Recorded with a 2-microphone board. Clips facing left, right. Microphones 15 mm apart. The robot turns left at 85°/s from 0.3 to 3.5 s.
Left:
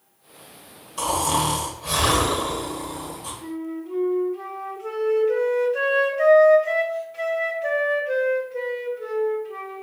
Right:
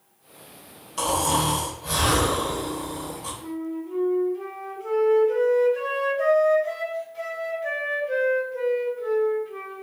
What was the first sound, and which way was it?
Snoring, 160° right.